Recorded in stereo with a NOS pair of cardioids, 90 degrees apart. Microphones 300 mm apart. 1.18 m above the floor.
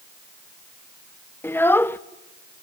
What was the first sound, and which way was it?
A child speaking, 5° left.